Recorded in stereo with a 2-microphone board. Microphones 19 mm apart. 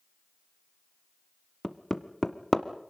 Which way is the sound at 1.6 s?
20° left (ahead or behind).